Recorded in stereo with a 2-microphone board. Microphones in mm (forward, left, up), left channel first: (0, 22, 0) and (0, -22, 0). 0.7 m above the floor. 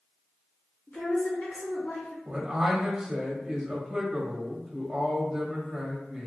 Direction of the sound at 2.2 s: 10° right (ahead or behind).